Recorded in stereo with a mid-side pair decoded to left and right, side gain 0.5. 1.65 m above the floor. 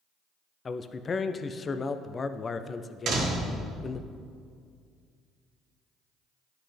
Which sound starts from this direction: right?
A door slam, at 3.1 s.